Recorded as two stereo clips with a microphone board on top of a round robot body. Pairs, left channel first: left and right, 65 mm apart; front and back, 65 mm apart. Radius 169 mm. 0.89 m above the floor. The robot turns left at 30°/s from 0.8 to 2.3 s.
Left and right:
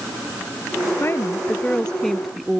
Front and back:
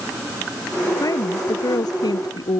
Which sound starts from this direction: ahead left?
A woman speaking, at 1.0 s.